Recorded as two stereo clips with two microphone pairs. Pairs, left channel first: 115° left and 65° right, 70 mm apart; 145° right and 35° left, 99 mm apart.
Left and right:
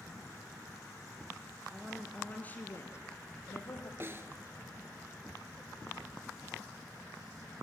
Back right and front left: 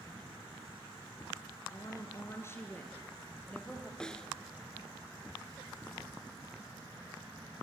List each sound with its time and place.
1.7 s a woman speaking: 135° right, 1.4 m; by 3.9 s 135° left, 2.5 m
4.0 s a snare drum: 65° right, 1.0 m